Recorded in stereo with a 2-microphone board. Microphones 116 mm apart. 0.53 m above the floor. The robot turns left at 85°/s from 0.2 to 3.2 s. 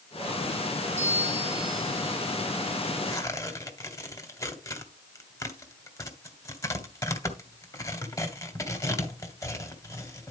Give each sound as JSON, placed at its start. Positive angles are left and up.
{"t": 1.0, "sound": "a bell", "azimuth_deg": -75, "distance_m": 3.0}
{"t": 3.1, "sound": "tearing paper", "side_deg": 40, "distance_m": 1.8}